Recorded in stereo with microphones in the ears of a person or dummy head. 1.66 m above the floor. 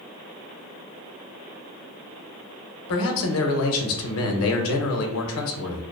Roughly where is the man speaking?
Left.